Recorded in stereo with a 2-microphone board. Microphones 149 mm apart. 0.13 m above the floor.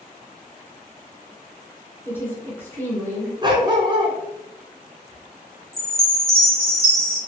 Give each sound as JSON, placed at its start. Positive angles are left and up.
{"t": 2.0, "sound": "a woman speaking", "side_deg": 15, "distance_m": 1.1}
{"t": 3.4, "sound": "a dog barking", "side_deg": -30, "distance_m": 0.6}
{"t": 5.7, "sound": "a chime", "side_deg": 5, "distance_m": 1.0}